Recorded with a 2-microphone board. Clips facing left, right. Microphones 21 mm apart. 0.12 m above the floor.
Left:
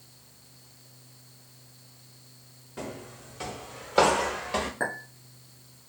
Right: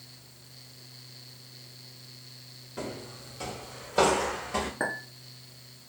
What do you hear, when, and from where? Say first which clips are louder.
2.8 s footsteps: right 1 dB; 5° right (ahead or behind), 0.9 m; by 4.7 s 45° left (ahead or behind), 1.3 m
4.8 s a clink: even; 5° right (ahead or behind), 0.7 m